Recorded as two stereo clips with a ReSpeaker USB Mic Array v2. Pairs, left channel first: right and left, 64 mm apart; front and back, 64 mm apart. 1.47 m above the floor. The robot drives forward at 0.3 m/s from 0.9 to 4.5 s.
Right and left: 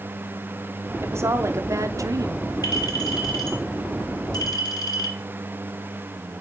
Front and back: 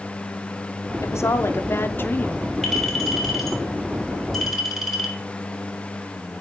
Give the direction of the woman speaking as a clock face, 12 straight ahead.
11 o'clock.